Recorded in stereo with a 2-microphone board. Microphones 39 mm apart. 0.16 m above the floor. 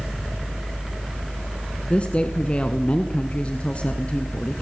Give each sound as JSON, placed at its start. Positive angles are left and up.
{"t": 1.9, "sound": "a woman speaking", "side_deg": 30, "distance_m": 1.6}